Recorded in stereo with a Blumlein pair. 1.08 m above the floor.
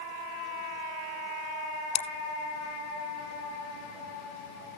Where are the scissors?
40° left, 2 m.